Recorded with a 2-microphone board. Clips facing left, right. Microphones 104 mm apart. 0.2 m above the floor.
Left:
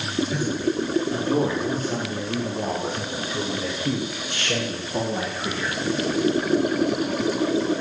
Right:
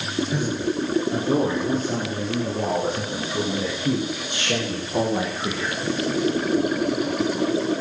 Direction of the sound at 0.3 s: 20° right (ahead or behind).